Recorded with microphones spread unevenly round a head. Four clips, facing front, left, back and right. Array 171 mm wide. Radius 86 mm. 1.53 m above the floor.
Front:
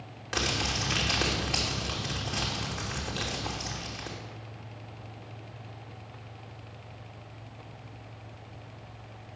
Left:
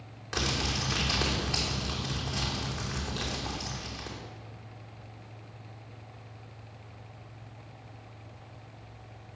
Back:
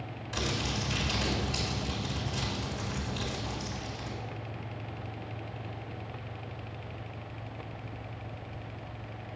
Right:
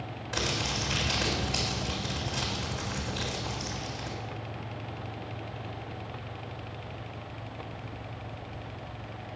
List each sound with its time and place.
0.3 s crumpling: 15° left, 3 m